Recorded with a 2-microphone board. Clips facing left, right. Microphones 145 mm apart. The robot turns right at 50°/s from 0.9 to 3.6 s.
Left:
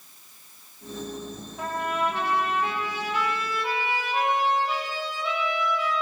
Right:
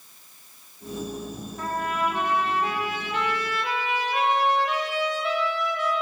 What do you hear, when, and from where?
1.6 s a trumpet: 165° left, 6.5 m; by 5.9 s 95° right, 6.5 m